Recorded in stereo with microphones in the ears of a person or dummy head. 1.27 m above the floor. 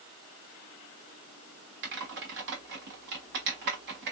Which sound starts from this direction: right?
Typing on a keyboard, at 1.8 s.